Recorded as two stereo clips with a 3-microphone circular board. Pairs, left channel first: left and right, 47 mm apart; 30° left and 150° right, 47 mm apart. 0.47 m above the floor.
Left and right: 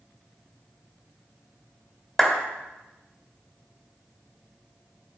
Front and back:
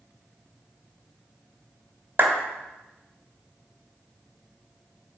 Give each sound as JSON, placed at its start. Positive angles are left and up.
{"t": 2.2, "sound": "a clap", "azimuth_deg": 175, "distance_m": 1.9}